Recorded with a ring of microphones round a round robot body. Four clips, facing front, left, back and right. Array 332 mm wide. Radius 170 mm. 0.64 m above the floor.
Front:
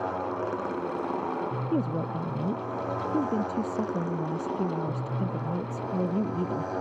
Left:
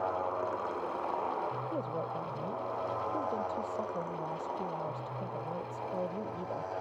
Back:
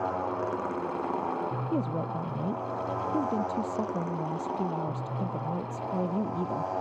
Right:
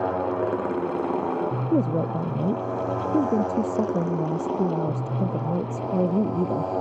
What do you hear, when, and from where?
0.0 s a motorcycle: 85° right; by 6.8 s 70° right
1.7 s a woman speaking: 80° right